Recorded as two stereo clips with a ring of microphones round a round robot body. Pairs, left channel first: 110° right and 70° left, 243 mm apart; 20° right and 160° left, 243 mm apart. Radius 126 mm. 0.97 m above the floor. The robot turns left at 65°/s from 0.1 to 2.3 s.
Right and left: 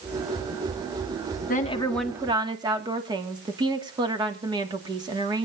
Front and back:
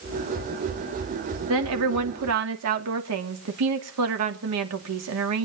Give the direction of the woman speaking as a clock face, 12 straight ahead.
6 o'clock.